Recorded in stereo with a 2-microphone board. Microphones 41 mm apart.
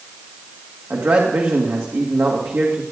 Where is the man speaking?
70° right (ahead or behind), 2 m.